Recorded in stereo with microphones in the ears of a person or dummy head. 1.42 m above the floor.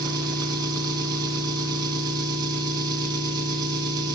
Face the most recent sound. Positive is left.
turn(degrees=-20)  # may be behind; listen again after turning